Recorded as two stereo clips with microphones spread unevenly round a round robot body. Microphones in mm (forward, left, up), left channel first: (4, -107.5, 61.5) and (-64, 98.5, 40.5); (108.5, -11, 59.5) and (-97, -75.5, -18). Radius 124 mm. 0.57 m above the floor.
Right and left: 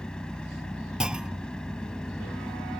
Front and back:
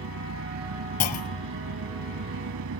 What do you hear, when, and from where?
0.0 s an engine running: 160° right
1.0 s a clunk: 20° left